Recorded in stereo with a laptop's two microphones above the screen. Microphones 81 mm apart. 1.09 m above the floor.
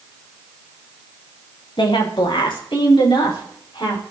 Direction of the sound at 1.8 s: 85° left.